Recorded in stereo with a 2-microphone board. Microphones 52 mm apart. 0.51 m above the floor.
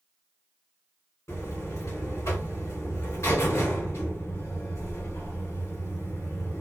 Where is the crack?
I don't hear a crack.